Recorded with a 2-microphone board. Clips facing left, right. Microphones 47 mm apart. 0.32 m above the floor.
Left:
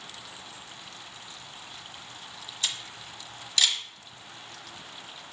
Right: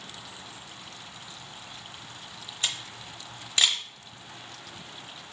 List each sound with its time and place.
2.6 s a camera shutter: 35° right (ahead or behind), 0.8 m